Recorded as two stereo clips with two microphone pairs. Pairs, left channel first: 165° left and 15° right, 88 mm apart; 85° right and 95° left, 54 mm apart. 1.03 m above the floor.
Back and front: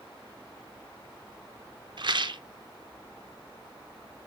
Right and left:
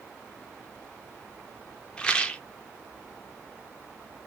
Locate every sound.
2.0 s a rattle: 15° right, 0.5 m